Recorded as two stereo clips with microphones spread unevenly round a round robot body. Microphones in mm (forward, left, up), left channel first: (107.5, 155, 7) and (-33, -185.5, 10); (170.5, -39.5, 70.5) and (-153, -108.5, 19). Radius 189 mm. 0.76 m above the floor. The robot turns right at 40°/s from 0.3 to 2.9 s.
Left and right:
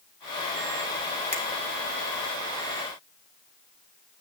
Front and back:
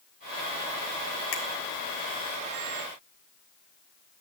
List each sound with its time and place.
1.3 s a finger snap: 40° right, 3.5 m; by 1.4 s 35° right, 3.5 m